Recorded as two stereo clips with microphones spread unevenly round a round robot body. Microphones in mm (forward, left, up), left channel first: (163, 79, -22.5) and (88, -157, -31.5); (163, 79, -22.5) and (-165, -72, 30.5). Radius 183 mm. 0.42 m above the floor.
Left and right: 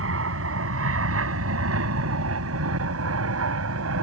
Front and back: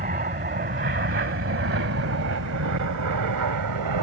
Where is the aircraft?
90° right; by 4.0 s 125° right.